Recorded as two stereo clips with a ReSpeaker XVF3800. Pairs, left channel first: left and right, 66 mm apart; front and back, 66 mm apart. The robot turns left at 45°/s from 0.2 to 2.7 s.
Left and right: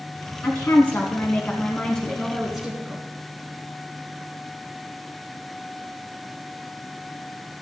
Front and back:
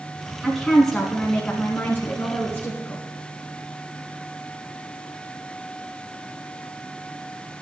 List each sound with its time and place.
0.4 s a woman speaking: 95° left, 1.6 m; by 3.0 s 5° right, 1.6 m